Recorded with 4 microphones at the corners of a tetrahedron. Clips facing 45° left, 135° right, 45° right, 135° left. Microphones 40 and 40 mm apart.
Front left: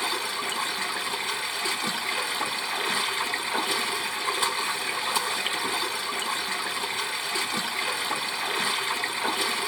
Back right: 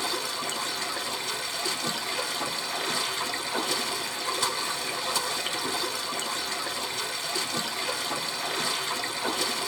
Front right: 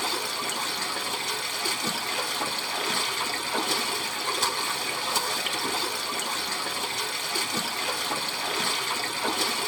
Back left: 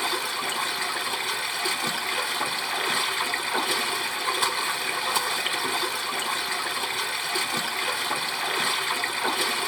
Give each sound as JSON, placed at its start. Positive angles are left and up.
{"t": 0.0, "sound": "running water", "azimuth_deg": 85, "distance_m": 0.8}